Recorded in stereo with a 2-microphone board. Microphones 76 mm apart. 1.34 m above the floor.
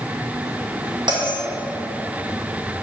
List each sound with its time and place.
1.1 s a bell: 70° right (ahead or behind), 1.5 m